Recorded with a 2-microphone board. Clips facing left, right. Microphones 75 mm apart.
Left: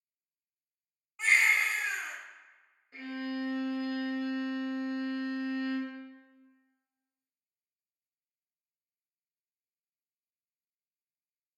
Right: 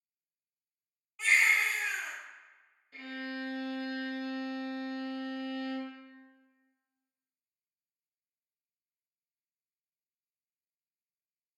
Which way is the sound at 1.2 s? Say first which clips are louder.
Left 1 dB; 25° left (ahead or behind).